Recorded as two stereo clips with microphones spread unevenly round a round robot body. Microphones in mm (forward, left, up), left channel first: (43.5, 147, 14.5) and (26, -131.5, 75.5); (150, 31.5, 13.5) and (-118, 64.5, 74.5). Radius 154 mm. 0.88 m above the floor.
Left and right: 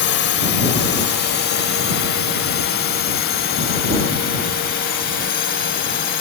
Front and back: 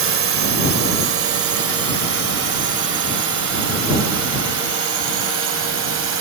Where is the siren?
No siren in this recording.